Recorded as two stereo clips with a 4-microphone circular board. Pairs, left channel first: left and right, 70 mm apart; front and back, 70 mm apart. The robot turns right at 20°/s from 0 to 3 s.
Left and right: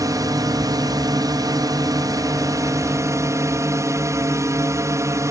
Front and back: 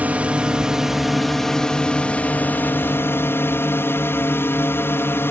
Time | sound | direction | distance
0.0 | a drone | 115° right | ?